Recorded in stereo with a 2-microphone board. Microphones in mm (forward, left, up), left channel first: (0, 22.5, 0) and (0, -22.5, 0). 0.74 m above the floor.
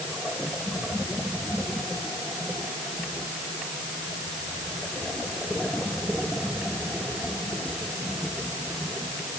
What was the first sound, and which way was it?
Only background noise.